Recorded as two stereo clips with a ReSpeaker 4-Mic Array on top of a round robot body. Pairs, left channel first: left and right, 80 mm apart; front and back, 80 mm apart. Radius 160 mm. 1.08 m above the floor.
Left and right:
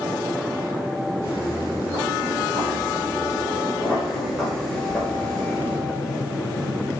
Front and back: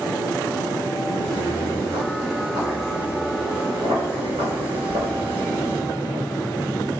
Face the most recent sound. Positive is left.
turn(degrees=150)